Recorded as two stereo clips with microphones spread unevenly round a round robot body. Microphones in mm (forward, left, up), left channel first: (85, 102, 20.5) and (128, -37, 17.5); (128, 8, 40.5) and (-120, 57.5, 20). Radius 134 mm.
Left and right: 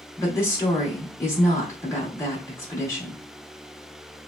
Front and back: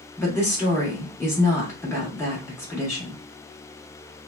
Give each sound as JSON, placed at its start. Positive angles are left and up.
{"t": 0.2, "sound": "a woman speaking", "azimuth_deg": 65, "distance_m": 0.8}